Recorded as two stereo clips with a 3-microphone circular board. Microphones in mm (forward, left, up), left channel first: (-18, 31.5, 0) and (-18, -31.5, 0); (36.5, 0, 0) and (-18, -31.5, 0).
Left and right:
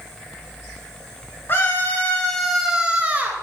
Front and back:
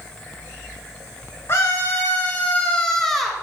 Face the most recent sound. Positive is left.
turn(degrees=-60)